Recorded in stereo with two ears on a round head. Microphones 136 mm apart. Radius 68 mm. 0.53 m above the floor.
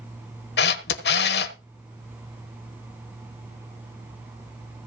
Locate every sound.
0.6 s a camera shutter: 80° left, 1.2 m